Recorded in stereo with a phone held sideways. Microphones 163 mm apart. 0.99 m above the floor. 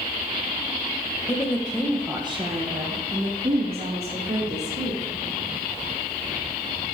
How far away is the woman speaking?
About 0.8 m.